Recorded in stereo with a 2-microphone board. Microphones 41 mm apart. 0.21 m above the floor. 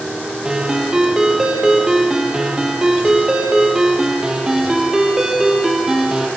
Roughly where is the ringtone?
Centre.